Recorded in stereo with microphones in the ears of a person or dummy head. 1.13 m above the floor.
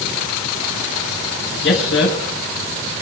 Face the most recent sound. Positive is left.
turn(degrees=70)  # may be behind; listen again after turning